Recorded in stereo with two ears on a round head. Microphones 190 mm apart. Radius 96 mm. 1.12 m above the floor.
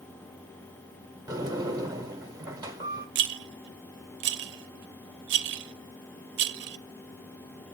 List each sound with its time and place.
1.3 s a sliding door: 20° right (ahead or behind), 1.3 m
3.1 s a rattle: 60° right (ahead or behind), 0.5 m